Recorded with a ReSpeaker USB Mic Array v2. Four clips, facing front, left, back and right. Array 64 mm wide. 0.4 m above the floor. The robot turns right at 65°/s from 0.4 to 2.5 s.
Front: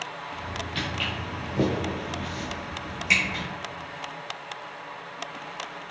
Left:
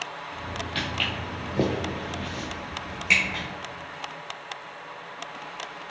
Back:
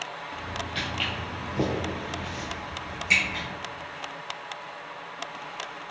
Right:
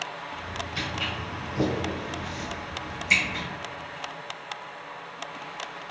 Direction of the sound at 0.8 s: 85° left.